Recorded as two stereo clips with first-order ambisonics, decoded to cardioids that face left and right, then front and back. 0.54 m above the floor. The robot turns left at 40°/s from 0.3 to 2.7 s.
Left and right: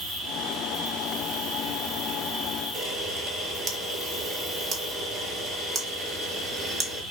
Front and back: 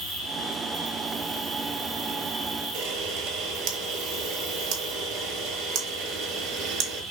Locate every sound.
0.0 s an insect: 40° right, 3.5 m; by 7.1 s 135° right, 3.5 m
2.7 s a camera shutter: 150° right, 1.0 m